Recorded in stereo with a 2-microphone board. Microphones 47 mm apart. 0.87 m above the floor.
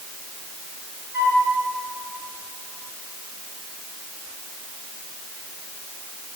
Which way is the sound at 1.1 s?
60° right (ahead or behind).